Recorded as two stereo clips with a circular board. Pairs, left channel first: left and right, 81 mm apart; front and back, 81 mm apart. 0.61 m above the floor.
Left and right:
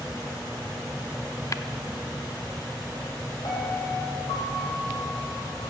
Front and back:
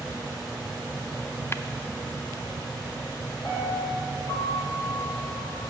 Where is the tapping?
50° left, 0.6 m.